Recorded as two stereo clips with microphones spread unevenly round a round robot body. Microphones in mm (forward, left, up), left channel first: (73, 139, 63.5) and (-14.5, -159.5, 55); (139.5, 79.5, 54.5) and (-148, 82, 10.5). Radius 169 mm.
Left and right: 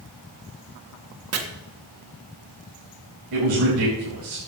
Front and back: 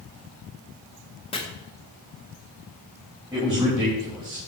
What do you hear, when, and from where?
1.3 s chopping: 75° right, 1.7 m
3.3 s a man speaking: 105° right, 4 m